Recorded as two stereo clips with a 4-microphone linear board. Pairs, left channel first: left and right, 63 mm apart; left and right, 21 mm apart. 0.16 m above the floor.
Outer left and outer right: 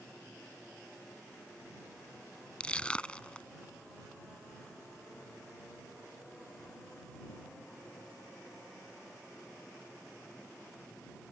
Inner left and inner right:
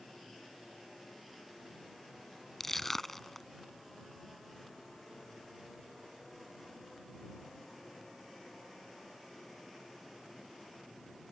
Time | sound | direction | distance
2.6 | crushing | 15° left (ahead or behind) | ?